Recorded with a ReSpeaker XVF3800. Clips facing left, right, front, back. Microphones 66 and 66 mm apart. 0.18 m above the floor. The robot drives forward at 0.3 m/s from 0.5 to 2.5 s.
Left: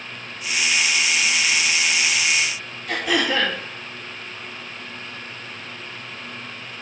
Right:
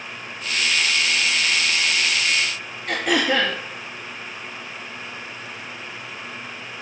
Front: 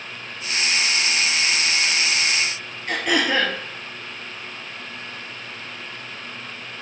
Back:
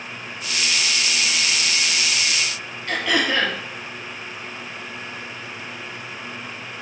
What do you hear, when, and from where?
2.9 s throat clearing: 75° right, 1.2 m